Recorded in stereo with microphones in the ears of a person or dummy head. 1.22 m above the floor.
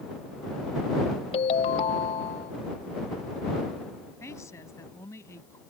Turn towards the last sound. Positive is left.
turn(degrees=20)  # may be behind; listen again after turning